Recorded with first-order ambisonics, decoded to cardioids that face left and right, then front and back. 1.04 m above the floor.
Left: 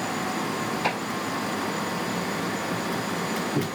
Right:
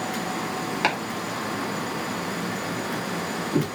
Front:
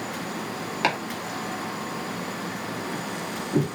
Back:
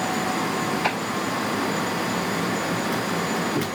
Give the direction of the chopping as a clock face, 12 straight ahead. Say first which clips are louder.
Right 2 dB, back 2 dB; 2 o'clock.